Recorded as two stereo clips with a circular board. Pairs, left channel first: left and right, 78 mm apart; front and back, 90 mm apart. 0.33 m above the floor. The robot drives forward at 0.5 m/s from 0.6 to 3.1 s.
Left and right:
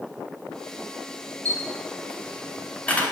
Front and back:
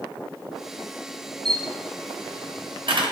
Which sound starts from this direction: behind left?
A camera shutter, at 1.4 s.